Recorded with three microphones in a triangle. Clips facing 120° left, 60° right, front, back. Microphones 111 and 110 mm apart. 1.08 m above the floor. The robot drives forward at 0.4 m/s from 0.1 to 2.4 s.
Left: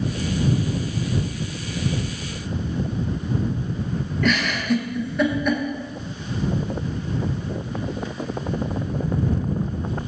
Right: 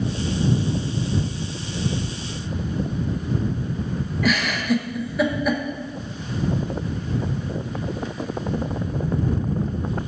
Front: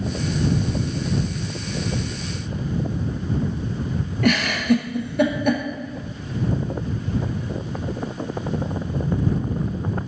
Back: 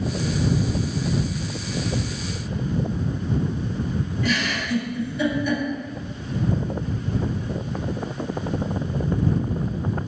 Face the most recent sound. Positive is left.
turn(degrees=25)